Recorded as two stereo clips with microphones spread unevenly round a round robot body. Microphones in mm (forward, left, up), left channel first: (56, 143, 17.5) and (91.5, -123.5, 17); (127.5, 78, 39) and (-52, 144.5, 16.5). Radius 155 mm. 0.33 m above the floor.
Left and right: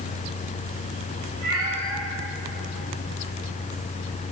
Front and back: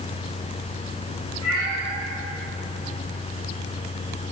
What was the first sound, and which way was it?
A cat meowing, 130° right.